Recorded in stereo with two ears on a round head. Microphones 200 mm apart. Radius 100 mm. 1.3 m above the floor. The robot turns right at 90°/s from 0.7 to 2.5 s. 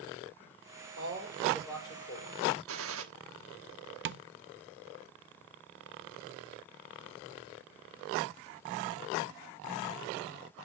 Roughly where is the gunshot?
Right.